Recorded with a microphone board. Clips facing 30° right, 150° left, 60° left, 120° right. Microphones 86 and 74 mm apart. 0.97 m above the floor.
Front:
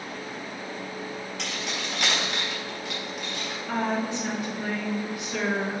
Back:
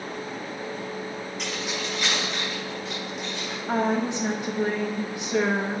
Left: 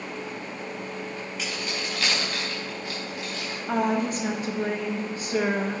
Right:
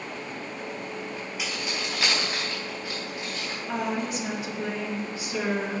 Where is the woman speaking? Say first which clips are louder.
Back 3 dB, left 5 dB; 90° left, 1.2 m.